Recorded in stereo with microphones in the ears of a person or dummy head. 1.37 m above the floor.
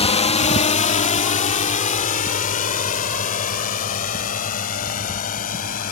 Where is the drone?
30° left (ahead or behind); by 5.9 s 50° left (ahead or behind).